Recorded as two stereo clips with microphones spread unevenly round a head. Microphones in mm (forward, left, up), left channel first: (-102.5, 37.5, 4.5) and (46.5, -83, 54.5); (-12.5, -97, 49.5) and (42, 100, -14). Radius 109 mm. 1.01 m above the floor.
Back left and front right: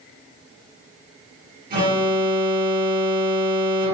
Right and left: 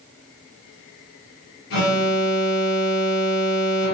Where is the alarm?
80° right, 3 m.